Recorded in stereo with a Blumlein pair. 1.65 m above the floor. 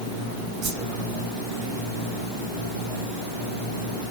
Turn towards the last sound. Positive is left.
turn(degrees=-45)